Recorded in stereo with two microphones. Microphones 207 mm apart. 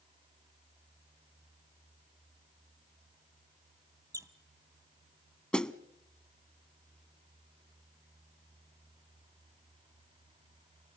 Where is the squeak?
15° right (ahead or behind), 0.8 m.